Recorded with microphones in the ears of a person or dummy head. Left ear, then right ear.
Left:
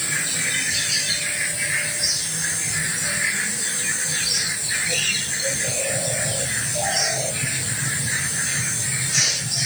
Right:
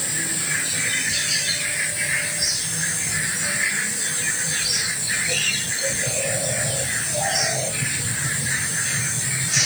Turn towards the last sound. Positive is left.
No sound to turn to.